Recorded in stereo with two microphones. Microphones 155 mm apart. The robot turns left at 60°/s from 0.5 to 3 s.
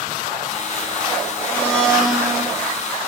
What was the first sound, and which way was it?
A blender, 15° left (ahead or behind).